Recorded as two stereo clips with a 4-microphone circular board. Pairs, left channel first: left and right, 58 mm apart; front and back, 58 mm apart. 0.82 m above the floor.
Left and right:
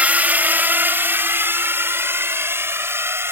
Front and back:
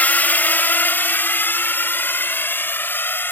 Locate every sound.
0.0 s a drone: 40° right; by 3.3 s 50° right